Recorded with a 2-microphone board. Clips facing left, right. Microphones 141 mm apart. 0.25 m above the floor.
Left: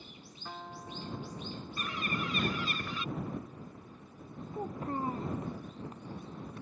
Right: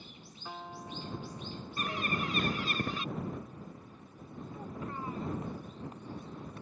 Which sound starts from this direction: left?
A child speaking, at 4.5 s.